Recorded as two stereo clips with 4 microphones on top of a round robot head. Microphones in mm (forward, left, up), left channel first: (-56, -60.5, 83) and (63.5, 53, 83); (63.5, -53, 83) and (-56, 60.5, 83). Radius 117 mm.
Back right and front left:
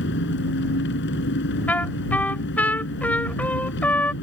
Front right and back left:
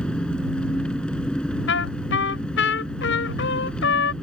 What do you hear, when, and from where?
0.0 s an engine running: 130° right
1.7 s a trumpet: 55° right